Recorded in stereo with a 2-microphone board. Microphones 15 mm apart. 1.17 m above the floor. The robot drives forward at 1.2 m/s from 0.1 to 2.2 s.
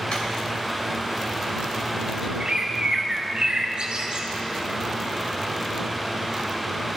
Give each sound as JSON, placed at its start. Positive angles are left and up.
{"t": 0.1, "sound": "a drawer", "side_deg": 70, "distance_m": 2.5}
{"t": 2.4, "sound": "a bird", "side_deg": -65, "distance_m": 1.6}